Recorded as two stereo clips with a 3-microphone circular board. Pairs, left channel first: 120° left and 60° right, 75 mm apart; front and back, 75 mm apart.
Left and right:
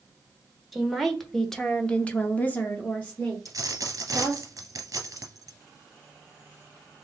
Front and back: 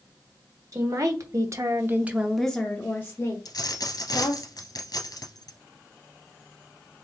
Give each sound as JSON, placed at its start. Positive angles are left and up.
{"t": 0.7, "sound": "a woman speaking", "azimuth_deg": -150, "distance_m": 1.4}
{"t": 3.5, "sound": "a dropped coin", "azimuth_deg": -20, "distance_m": 1.2}